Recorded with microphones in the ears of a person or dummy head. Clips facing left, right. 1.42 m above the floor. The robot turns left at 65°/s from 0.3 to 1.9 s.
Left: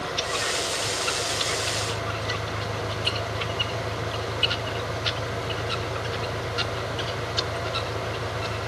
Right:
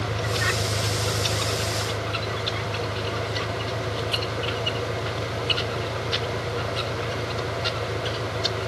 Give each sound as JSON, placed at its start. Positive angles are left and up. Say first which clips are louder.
{"t": 0.0, "sound": "an engine running", "louder": "right 2 dB", "azimuth_deg": -60}